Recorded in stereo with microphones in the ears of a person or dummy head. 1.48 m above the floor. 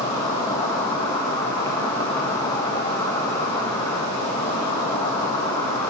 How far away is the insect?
About 1.4 m.